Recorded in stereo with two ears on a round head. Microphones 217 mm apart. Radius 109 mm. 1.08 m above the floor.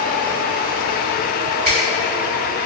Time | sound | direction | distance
1.6 | a finger snap | 45° right (ahead or behind) | 1.6 m